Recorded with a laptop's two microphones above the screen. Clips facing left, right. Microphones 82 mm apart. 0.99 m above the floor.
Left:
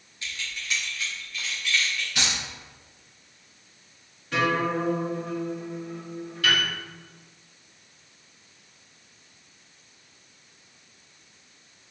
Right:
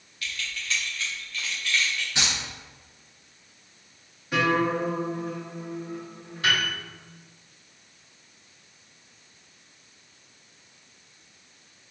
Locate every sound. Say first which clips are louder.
0.2 s keys jangling: right 1 dB; 25° left (ahead or behind), 0.6 m; by 2.0 s 10° left (ahead or behind), 1.8 m
2.1 s keys jangling: even; 25° right (ahead or behind), 1.6 m
4.3 s a guitar: right 1 dB; 10° right (ahead or behind), 1.7 m
6.4 s a piano: even; 25° right (ahead or behind), 1.2 m